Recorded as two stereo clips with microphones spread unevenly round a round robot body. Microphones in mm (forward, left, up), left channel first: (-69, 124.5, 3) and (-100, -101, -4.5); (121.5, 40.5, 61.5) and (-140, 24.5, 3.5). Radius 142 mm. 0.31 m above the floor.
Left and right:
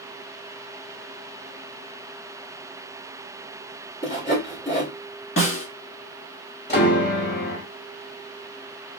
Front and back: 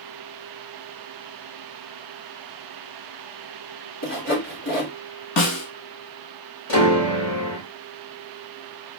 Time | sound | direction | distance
4.0 | sawing | 20° left | 1.6 m
5.4 | a snare drum | 20° left | 0.9 m
6.7 | a piano | 25° left | 1.5 m